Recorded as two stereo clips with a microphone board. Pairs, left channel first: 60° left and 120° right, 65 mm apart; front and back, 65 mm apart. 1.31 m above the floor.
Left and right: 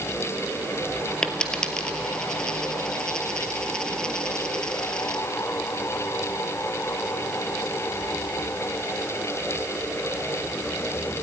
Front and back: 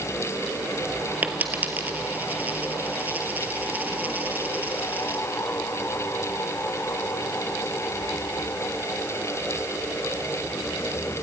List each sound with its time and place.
1.2 s a dropped coin: 130° left, 1.6 m